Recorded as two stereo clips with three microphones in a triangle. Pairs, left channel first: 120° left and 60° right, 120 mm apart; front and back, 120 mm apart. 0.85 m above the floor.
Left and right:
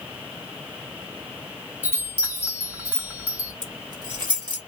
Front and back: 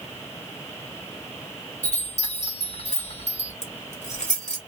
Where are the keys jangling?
5° right, 1.4 m.